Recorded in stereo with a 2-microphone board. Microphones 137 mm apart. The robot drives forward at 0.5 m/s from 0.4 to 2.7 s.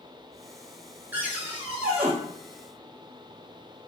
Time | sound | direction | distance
1.1 | a cupboard door | 15° right (ahead or behind) | 0.7 m